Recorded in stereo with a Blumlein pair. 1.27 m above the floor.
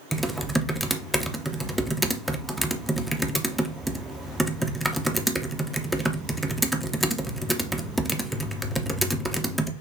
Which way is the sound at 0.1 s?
Straight ahead.